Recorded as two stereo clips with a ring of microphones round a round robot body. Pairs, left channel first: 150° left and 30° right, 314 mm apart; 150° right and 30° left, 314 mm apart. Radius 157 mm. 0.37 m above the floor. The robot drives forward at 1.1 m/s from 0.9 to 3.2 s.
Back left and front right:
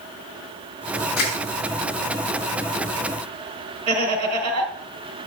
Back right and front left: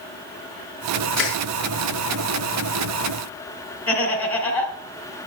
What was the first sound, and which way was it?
Crushing, 120° left.